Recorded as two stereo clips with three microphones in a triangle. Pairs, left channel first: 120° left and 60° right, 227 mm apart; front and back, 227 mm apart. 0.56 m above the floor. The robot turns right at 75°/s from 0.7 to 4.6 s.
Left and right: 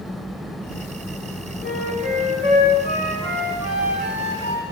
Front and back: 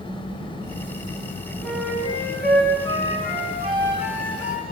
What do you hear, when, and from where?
1.6 s a flute: 90° left, 2.0 m; by 4.7 s 50° right, 2.0 m